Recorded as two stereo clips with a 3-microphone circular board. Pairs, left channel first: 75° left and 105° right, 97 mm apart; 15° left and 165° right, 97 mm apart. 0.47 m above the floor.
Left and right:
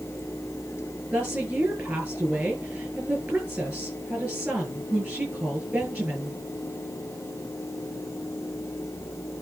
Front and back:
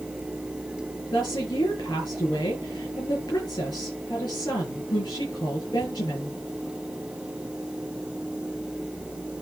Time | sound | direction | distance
1.1 | a woman speaking | 35° right | 8 m